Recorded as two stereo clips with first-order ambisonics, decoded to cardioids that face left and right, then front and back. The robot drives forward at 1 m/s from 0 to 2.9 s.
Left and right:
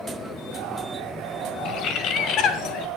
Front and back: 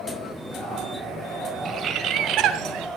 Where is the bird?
120° left, 1.7 m; by 2.9 s 150° left, 2.5 m.